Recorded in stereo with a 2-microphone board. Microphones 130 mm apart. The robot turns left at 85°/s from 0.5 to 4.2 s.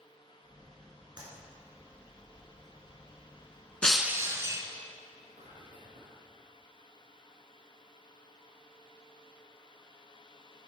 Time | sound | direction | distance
1.2 | a clap | 35° right (ahead or behind) | 2.5 m
3.8 | breaking glass | 10° left | 0.5 m
5.1 | whispering | 65° right (ahead or behind) | 3 m